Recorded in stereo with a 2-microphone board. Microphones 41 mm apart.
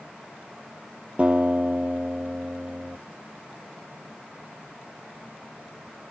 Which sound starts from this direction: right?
A guitar, at 1.2 s.